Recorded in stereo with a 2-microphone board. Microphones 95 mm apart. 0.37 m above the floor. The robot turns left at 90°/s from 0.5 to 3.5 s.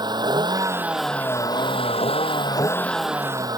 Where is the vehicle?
130° right; by 3.6 s 40° right.